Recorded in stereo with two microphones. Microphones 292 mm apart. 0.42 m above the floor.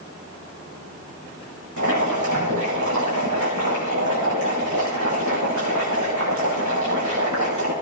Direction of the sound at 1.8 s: 75° right (ahead or behind).